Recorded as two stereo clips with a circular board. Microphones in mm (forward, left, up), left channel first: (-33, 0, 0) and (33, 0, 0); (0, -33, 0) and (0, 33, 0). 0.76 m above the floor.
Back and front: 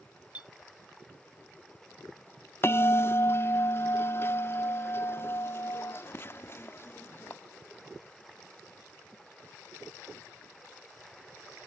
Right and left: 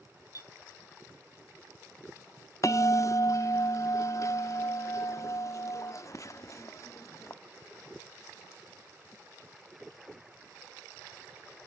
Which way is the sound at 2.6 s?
130° right.